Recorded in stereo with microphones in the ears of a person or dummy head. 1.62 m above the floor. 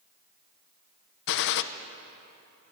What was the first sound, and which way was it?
A gunshot, 60° left (ahead or behind).